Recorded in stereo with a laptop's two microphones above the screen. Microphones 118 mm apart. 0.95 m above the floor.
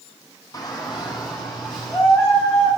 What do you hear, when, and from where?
0.5 s a shout: 30° left (ahead or behind), 1.0 m; by 2.7 s 40° left (ahead or behind), 4.5 m